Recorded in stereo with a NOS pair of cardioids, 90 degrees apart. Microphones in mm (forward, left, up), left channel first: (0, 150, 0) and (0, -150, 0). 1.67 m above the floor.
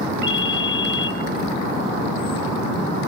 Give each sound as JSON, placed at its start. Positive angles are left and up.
{"t": 0.2, "sound": "a ringtone", "azimuth_deg": 15, "distance_m": 3.0}